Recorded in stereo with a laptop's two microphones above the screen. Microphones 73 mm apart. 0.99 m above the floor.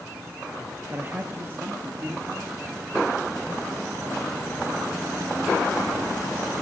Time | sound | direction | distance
0.9 | a man speaking | 30° right (ahead or behind) | 1.3 m